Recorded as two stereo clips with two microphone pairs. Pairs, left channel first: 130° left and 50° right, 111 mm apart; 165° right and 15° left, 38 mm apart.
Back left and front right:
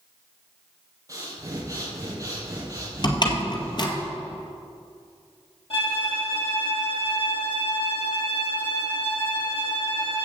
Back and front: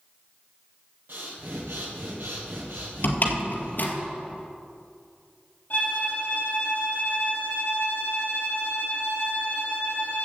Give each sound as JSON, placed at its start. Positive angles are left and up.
{"t": 1.1, "sound": "breathing", "azimuth_deg": 10, "distance_m": 3.0}
{"t": 3.0, "sound": "a door slam", "azimuth_deg": 175, "distance_m": 1.8}
{"t": 5.7, "sound": "a violin", "azimuth_deg": 160, "distance_m": 4.0}